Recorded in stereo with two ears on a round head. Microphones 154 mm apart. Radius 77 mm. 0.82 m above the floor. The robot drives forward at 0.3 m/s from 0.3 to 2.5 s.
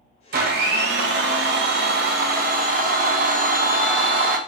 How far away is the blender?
About 0.6 m.